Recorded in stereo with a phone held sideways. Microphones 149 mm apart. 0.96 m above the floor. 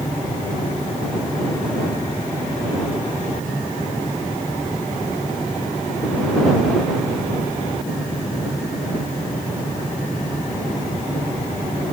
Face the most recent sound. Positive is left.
No sound to turn to.